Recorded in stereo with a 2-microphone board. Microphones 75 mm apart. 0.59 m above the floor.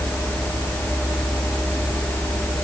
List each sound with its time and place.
Only background noise.